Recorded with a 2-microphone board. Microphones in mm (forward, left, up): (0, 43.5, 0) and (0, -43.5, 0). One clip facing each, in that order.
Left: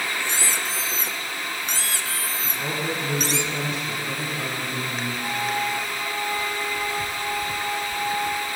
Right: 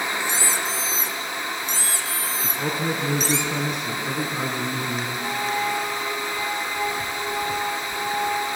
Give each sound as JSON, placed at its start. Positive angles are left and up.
{"t": 0.2, "sound": "a squeak", "side_deg": 60, "distance_m": 1.4}
{"t": 2.4, "sound": "a man speaking", "side_deg": -65, "distance_m": 2.5}
{"t": 5.2, "sound": "a flute", "side_deg": -35, "distance_m": 7.5}